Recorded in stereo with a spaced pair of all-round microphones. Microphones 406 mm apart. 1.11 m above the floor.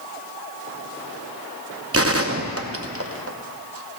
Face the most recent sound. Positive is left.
turn(degrees=-35)  # may be behind; listen again after turning